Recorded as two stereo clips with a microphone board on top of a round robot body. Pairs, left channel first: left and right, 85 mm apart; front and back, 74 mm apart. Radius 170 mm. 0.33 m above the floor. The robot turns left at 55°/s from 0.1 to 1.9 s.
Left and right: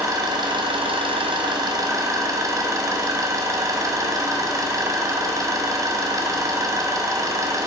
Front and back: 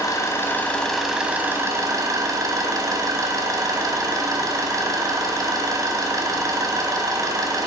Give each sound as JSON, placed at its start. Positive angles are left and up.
{"t": 0.0, "sound": "an engine running", "azimuth_deg": -40, "distance_m": 2.5}